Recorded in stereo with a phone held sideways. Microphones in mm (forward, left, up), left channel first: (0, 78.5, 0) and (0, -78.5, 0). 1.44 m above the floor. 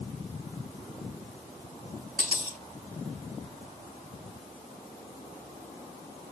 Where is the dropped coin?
70° right (ahead or behind), 3.5 m.